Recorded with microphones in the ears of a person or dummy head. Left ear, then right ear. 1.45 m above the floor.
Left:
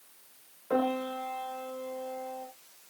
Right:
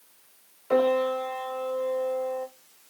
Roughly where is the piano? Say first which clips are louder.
Right 7 dB; right.